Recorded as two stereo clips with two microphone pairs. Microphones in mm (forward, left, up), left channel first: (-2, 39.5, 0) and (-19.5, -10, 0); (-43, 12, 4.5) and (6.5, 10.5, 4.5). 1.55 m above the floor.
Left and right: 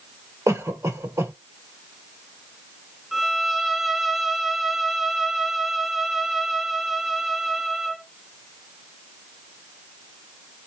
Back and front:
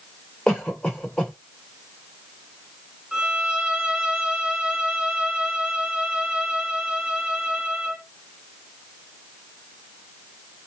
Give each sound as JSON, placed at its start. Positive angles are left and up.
{"t": 0.5, "sound": "a cough", "azimuth_deg": -105, "distance_m": 3.0}
{"t": 3.1, "sound": "a violin", "azimuth_deg": -25, "distance_m": 0.7}